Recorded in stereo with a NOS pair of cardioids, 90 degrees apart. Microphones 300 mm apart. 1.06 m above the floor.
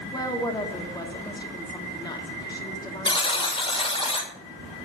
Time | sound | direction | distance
0.1 | a woman speaking | 15° left | 1.9 m
3.0 | a buzzer | 20° left | 2 m